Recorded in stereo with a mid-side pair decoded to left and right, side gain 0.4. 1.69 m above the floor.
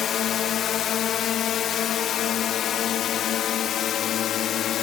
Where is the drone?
70° left.